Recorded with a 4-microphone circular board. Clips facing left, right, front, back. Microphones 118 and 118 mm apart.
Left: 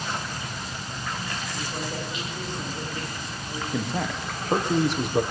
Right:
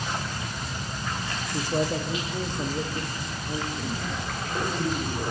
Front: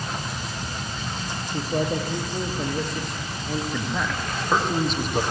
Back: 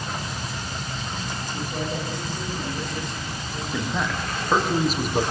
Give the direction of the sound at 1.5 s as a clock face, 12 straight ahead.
2 o'clock.